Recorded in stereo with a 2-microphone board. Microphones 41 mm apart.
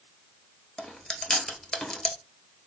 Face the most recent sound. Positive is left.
turn(degrees=20)  # may be behind; listen again after turning